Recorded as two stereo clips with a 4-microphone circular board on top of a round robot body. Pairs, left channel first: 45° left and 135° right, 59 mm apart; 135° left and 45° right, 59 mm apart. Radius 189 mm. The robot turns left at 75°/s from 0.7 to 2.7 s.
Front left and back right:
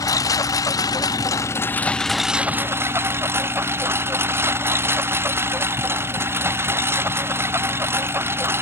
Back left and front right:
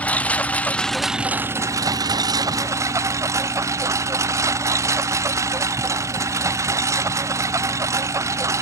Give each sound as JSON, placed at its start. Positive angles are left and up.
{"t": 0.0, "sound": "a lawn mower", "azimuth_deg": 65}